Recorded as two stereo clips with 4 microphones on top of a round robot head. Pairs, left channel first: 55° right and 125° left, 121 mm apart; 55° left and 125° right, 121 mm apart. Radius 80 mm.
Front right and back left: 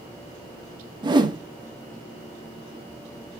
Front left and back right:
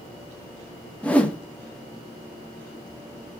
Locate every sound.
1.0 s a whoosh: 130° left, 0.8 m